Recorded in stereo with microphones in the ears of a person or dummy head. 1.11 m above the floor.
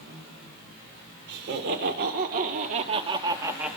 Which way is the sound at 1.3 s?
60° right (ahead or behind).